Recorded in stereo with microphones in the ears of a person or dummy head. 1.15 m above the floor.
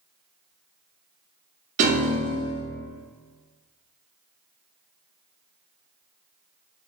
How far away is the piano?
About 0.7 m.